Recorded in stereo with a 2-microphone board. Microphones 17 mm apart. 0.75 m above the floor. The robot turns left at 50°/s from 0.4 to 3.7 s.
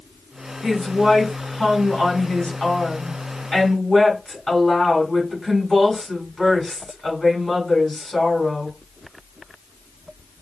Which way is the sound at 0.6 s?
175° right.